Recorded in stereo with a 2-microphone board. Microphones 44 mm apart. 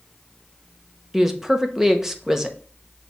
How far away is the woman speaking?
About 0.9 m.